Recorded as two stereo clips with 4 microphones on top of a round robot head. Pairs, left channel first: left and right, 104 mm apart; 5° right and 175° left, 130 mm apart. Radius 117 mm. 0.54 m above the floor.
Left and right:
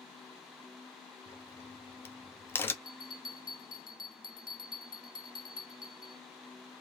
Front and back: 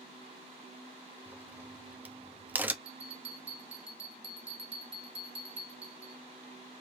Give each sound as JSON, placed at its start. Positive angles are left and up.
{"t": 1.3, "sound": "a crack", "azimuth_deg": 120, "distance_m": 1.0}
{"t": 2.9, "sound": "a bell", "azimuth_deg": 135, "distance_m": 2.5}